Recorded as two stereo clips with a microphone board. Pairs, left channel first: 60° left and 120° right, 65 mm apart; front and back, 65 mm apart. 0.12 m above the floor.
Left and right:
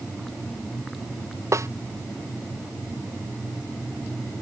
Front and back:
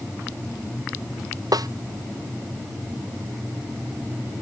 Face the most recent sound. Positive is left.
turn(degrees=-160)